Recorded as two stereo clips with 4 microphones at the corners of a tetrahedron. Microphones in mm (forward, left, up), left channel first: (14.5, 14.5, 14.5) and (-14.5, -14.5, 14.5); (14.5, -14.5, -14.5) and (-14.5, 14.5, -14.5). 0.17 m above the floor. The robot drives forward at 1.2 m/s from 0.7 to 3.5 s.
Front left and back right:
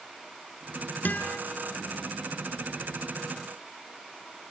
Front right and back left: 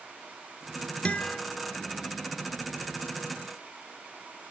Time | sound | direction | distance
1.1 | a guitar | 10° left | 0.9 m